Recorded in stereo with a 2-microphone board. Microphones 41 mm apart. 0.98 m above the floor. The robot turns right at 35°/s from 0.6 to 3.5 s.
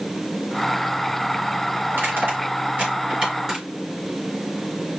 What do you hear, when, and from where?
1.9 s crushing: 70° right (ahead or behind), 3.5 m; by 3.6 s 15° right (ahead or behind), 3.5 m